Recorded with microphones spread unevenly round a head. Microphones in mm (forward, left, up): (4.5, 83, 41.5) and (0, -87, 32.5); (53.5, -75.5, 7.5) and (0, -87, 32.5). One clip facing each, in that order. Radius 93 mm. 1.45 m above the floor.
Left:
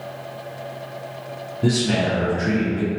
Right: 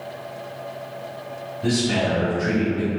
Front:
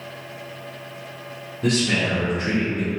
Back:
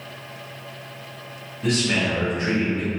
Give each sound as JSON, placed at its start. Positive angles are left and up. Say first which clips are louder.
{"t": 1.6, "sound": "a man speaking", "louder": "left 1 dB, front 1 dB", "azimuth_deg": 60, "distance_m": 0.7}